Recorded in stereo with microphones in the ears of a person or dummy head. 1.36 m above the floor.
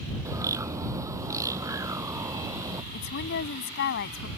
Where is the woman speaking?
55° left (ahead or behind).